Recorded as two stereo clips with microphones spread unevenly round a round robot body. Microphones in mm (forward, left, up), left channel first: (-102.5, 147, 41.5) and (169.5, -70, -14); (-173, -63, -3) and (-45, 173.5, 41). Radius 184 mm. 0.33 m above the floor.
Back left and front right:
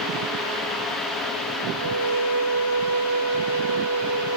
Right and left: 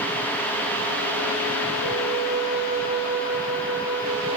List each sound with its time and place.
1.7 s a violin: straight ahead, 9.5 m